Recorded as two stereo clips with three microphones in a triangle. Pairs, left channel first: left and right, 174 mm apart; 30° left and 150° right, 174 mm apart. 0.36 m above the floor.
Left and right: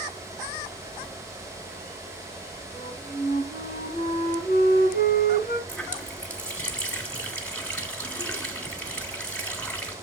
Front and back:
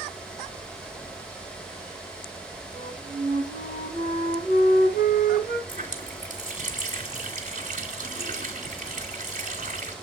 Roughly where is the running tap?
Behind.